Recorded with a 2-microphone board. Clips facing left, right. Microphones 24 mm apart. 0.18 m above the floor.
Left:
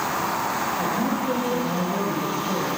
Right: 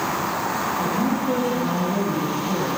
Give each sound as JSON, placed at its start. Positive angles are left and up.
{"t": 0.8, "sound": "a woman speaking", "side_deg": -5, "distance_m": 3.0}